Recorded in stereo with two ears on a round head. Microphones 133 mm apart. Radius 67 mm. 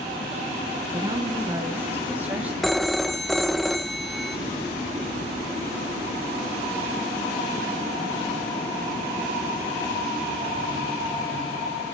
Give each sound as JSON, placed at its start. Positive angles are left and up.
{"t": 0.9, "sound": "a woman speaking", "side_deg": -35, "distance_m": 1.3}
{"t": 2.6, "sound": "a phone ringing", "side_deg": 0, "distance_m": 0.8}